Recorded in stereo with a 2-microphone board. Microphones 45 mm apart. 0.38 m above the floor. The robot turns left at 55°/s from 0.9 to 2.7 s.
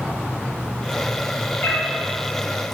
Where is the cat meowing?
70° left (ahead or behind), 1.6 m; by 1.9 s 55° left (ahead or behind), 1.6 m.